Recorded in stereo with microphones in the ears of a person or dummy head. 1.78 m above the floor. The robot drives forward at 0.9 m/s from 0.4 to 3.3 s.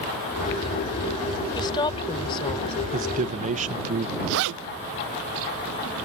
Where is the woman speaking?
25° left (ahead or behind); by 2.8 s 30° left (ahead or behind).